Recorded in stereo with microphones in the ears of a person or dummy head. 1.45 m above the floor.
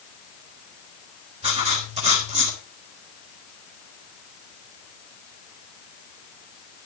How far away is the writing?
About 3.5 m.